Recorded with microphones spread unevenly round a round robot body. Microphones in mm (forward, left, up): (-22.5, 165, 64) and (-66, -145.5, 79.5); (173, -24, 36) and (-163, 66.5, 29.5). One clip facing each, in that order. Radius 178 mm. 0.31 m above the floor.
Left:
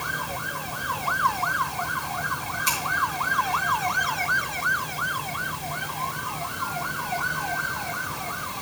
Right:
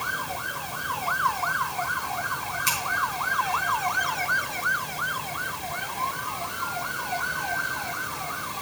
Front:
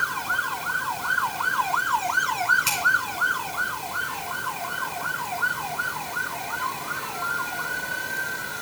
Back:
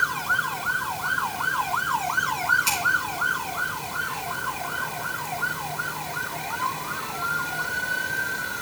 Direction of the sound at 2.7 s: 45° right.